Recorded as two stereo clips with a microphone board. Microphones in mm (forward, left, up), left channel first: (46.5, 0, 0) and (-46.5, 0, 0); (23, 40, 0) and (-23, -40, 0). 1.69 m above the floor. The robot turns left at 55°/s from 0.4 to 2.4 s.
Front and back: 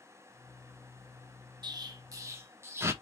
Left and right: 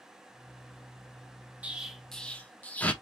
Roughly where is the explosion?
Behind.